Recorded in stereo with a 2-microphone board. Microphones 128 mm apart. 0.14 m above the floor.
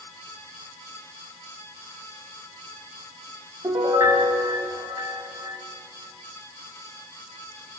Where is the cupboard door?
No cupboard door in this recording.